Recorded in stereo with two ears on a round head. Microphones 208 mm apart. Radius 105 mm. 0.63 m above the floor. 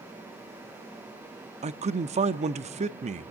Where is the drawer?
I don't hear a drawer.